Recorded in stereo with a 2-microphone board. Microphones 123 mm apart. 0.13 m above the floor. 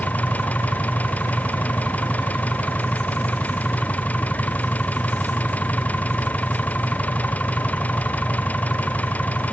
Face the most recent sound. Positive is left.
turn(degrees=10)  # may be behind; listen again after turning